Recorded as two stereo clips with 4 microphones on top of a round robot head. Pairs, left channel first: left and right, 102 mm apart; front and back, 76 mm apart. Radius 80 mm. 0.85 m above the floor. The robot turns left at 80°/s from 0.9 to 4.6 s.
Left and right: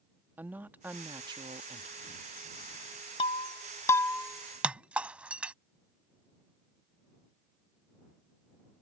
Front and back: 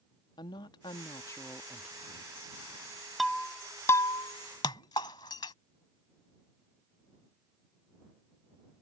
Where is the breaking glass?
95° left; by 5.5 s 15° right.